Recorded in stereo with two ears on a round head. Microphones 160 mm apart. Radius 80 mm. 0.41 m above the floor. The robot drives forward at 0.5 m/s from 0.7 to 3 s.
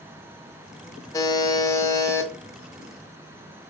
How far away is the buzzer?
About 0.6 m.